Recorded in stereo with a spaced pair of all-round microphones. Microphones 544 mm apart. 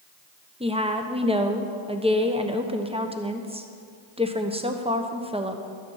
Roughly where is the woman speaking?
Centre.